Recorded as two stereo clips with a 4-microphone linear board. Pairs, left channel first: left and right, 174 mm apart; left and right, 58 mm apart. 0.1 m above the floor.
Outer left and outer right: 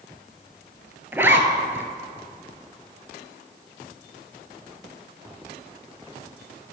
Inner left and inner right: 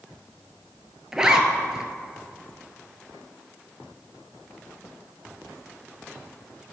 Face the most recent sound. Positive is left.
turn(degrees=-15)  # may be behind; listen again after turning